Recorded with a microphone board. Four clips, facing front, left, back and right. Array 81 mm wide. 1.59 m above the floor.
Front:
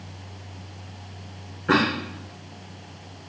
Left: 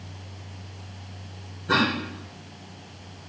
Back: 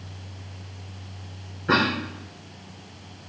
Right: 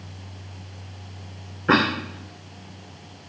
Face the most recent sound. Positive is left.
turn(degrees=-85)